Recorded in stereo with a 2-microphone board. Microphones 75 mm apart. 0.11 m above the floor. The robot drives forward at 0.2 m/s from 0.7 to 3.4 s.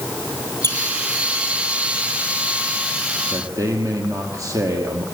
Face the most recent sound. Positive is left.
turn(degrees=-50)  # may be behind; listen again after turning